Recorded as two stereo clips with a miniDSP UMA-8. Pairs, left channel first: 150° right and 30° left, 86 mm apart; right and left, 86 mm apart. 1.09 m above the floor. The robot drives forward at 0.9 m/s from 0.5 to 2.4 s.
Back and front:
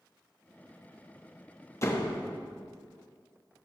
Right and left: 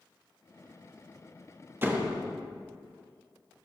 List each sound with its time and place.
1.8 s a door slam: 155° left, 1.5 m; by 2.2 s 160° left, 1.8 m